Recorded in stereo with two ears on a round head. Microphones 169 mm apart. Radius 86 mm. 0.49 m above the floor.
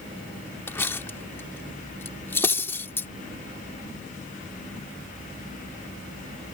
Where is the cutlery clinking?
10° left (ahead or behind).